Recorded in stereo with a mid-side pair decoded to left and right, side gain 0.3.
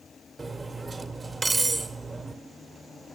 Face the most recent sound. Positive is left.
turn(degrees=-40)